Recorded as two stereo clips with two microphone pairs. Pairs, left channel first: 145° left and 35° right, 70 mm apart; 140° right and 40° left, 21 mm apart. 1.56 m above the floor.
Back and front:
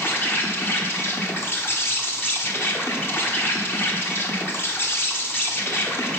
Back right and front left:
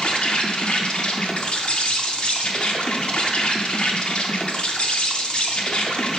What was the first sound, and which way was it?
An insect, 165° right.